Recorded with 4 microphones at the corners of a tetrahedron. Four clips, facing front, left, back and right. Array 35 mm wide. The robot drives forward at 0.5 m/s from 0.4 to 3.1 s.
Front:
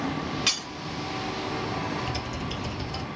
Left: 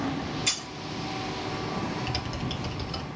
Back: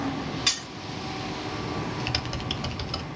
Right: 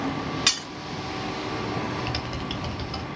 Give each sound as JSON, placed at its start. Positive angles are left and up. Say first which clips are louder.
{"t": 0.5, "sound": "breaking glass", "louder": "right 7 dB, even", "azimuth_deg": -75, "distance_m": 3.0}
{"t": 2.0, "sound": "typing on a keyboard", "louder": "right 2 dB, back 1 dB", "azimuth_deg": -160, "distance_m": 0.7}